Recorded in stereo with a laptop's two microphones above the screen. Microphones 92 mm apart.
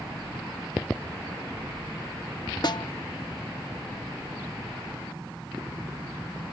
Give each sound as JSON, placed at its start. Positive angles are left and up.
{"t": 2.6, "sound": "a snare drum", "side_deg": 50, "distance_m": 0.6}